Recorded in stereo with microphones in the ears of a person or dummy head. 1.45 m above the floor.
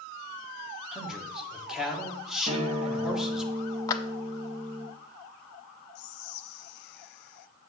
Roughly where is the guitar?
Right.